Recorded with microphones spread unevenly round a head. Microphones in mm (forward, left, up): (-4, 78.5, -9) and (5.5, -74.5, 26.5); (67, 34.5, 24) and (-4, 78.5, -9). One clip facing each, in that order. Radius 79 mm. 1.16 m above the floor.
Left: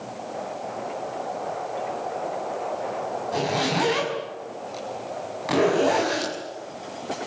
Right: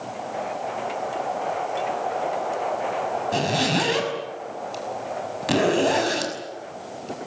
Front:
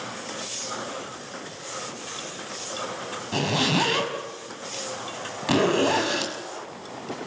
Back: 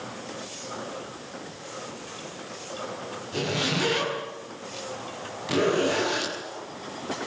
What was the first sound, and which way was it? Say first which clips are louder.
A zipper: even, front 4 dB; 35° right.